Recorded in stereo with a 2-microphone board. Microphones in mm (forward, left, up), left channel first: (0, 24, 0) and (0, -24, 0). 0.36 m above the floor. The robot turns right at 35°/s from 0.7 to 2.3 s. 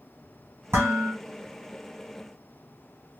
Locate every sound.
0.7 s dishes clattering: 65° right (ahead or behind), 1.7 m